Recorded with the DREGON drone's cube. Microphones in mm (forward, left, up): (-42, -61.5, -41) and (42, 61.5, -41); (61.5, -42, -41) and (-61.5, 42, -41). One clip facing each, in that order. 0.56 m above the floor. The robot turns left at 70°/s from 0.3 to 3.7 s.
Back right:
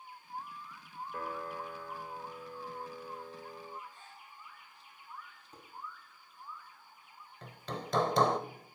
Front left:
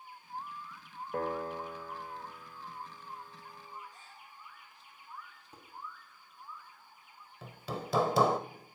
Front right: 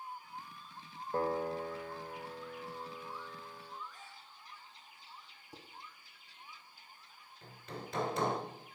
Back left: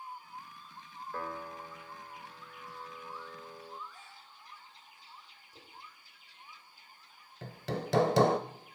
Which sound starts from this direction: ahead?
A piano, at 1.1 s.